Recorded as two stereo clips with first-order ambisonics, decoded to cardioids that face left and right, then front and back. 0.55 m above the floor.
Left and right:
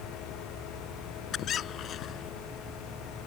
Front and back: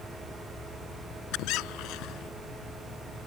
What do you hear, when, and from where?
1.3 s a squeak: 35° left